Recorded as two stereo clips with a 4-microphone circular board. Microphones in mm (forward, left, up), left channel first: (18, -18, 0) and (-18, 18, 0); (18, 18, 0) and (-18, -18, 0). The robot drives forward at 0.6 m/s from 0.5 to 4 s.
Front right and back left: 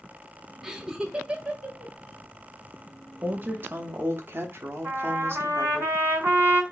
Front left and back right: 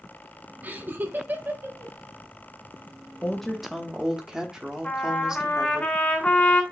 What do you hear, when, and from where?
0.6 s laughter: 150° right, 1.1 m; by 1.9 s 165° right, 1.6 m
3.2 s a woman speaking: 110° left, 0.6 m; by 5.8 s 150° left, 0.8 m
4.8 s a trumpet: 115° left, 2.5 m